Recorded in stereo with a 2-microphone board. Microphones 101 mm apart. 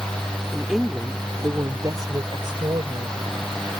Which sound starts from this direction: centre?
A woman speaking, at 0.5 s.